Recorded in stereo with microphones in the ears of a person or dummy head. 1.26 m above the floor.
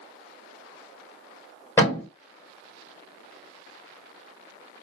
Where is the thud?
15° left (ahead or behind), 1.3 m.